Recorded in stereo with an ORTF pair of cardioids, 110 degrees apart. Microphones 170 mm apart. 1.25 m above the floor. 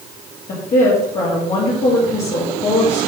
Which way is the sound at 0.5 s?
50° left.